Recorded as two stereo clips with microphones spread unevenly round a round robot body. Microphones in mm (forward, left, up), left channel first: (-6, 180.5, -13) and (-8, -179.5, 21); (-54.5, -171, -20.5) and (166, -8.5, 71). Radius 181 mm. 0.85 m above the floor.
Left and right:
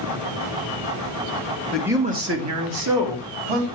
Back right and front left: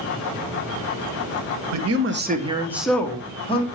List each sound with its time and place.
1.7 s a man speaking: 5° left, 1.5 m; by 3.7 s 80° right, 2.5 m